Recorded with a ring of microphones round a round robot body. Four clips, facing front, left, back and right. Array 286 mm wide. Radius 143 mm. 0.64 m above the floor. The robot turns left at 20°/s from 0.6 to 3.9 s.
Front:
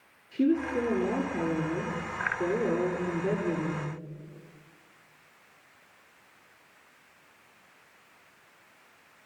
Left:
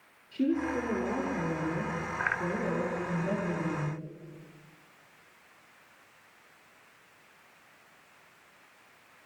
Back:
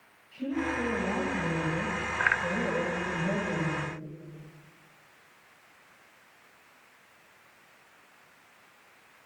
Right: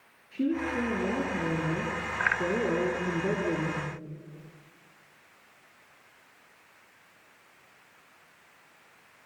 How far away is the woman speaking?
About 9.5 m.